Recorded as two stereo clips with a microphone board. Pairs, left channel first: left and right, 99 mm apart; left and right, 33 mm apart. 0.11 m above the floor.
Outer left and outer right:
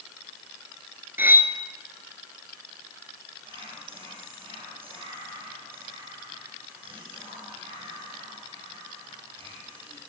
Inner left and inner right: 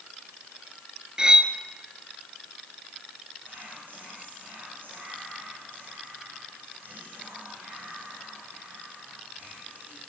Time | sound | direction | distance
1.2 | cutlery clinking | 20° right (ahead or behind) | 1.0 m
3.4 | whispering | 60° right (ahead or behind) | 6 m